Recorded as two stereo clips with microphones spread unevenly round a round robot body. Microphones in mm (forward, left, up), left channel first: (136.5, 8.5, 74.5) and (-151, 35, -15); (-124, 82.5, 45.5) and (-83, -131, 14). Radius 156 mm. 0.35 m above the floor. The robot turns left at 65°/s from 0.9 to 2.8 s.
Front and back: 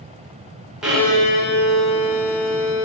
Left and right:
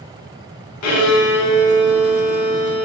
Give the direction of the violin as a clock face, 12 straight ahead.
9 o'clock.